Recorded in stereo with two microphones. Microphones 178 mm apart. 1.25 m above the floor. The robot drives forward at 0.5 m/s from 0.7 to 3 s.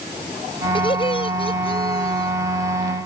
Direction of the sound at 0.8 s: 30° left (ahead or behind).